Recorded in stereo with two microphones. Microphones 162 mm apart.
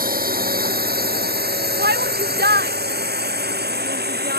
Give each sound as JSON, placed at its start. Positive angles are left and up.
{"t": 0.0, "sound": "a drone", "side_deg": -60}
{"t": 1.8, "sound": "a shout", "side_deg": -80}